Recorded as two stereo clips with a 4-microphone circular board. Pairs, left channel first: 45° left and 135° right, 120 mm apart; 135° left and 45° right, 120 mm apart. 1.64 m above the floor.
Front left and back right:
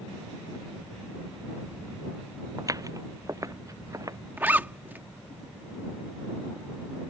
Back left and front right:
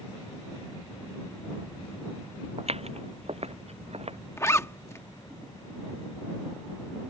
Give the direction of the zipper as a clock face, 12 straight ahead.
6 o'clock.